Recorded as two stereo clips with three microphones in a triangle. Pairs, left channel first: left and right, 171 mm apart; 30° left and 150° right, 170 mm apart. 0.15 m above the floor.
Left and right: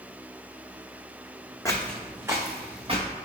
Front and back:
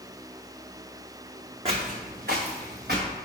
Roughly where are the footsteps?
Behind.